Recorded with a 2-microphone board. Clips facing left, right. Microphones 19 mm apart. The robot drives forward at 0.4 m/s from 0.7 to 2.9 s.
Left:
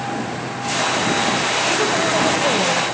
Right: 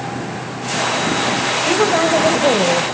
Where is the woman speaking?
30° right (ahead or behind), 1.8 m; by 2.8 s 35° right (ahead or behind), 1.6 m.